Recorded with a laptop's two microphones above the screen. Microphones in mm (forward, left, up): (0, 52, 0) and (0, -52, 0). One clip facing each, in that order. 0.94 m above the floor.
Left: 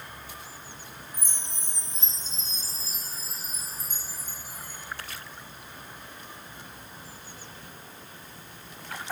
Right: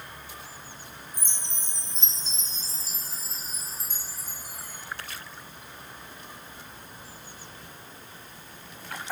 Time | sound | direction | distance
1.1 | a chime | 70° right (ahead or behind) | 3.5 m